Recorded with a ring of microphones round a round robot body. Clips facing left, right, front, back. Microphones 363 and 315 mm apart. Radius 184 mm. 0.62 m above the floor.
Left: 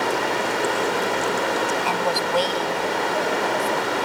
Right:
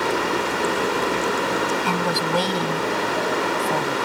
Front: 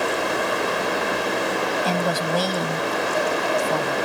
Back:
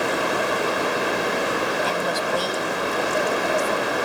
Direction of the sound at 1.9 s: 20° right.